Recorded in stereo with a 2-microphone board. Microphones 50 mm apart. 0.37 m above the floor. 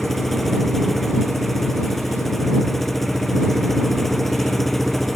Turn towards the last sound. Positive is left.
turn(degrees=5)  # may be behind; listen again after turning